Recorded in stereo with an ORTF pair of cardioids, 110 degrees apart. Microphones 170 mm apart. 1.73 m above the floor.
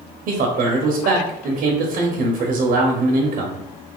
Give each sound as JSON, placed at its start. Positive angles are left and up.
{"t": 0.3, "sound": "a man speaking", "azimuth_deg": -60, "distance_m": 0.7}